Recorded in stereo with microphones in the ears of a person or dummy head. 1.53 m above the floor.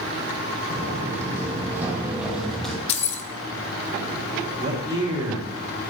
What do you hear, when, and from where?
0.7 s footsteps: 20° right (ahead or behind), 4.5 m; by 2.8 s 5° left (ahead or behind), 2 m
2.9 s keys jangling: 35° left (ahead or behind), 0.7 m
4.6 s a man speaking: 30° right (ahead or behind), 5 m